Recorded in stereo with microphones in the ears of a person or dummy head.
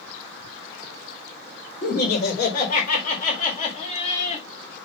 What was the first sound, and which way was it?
Laughter, 50° left (ahead or behind).